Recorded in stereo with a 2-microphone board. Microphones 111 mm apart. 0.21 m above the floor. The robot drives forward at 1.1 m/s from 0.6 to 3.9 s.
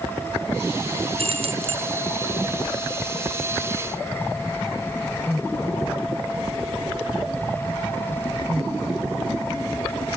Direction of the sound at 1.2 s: 65° right (ahead or behind).